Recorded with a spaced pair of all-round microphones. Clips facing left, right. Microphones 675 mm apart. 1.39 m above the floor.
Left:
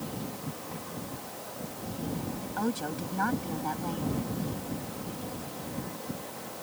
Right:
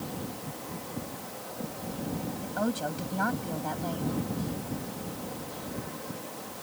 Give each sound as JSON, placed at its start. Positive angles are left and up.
{"t": 2.4, "sound": "a woman speaking", "side_deg": -10}